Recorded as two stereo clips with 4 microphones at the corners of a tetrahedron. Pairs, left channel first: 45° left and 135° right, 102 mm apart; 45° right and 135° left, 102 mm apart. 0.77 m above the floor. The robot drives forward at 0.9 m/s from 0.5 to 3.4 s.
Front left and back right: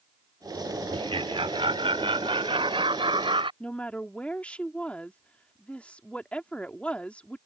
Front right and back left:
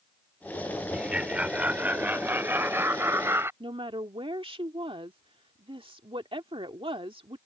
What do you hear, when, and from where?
0.9 s laughter: 145° right; by 3.5 s 160° right
3.6 s a woman speaking: 120° left